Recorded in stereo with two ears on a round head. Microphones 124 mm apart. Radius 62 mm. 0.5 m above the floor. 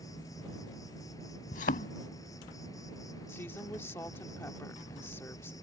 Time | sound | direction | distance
0.0 | an insect | 25° left (ahead or behind) | ?
1.5 | a thud | 60° left (ahead or behind) | ?
3.3 | a woman speaking | 15° left (ahead or behind) | ?